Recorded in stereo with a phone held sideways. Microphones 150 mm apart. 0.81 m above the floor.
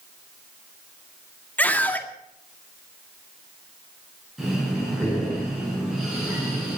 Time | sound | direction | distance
1.6 | a scream | 10° left (ahead or behind) | 1.9 m
4.4 | breathing | centre (ahead or behind) | 7.5 m